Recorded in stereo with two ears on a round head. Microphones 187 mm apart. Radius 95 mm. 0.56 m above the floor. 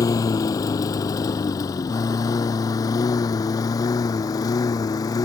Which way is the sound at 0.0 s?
15° left (ahead or behind).